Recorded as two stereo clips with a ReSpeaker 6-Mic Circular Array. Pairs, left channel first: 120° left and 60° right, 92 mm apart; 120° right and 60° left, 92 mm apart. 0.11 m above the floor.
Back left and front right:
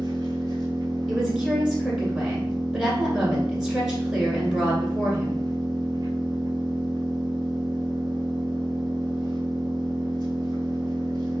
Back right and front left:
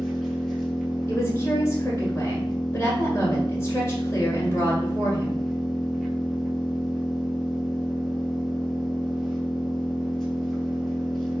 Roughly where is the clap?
No clap in this recording.